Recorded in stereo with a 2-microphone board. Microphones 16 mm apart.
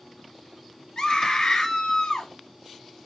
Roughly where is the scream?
Left.